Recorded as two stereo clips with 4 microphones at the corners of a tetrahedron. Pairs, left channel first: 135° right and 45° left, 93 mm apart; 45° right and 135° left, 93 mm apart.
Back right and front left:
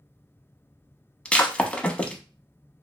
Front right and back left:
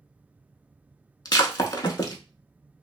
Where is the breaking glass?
60° right, 0.5 m.